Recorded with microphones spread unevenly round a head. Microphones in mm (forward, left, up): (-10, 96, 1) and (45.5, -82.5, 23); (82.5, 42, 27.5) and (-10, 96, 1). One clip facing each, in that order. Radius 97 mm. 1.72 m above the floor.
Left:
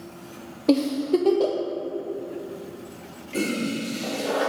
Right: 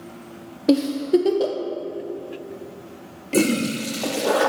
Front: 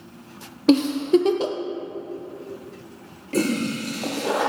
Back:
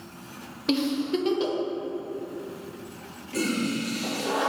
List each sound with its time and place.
0.7 s a giggle: 5° left, 0.6 m
3.3 s a toilet flushing: 70° right, 0.6 m